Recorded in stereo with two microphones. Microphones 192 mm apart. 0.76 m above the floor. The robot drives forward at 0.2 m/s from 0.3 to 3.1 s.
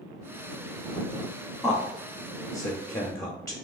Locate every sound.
1.6 s a man speaking: 10° left (ahead or behind), 0.7 m; by 3.6 s 15° left (ahead or behind), 0.5 m